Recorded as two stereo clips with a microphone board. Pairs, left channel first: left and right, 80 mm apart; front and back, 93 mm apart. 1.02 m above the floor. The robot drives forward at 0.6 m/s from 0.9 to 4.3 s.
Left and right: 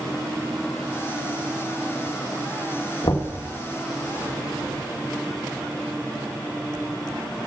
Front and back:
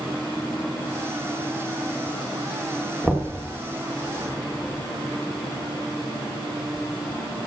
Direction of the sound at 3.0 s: 105° left.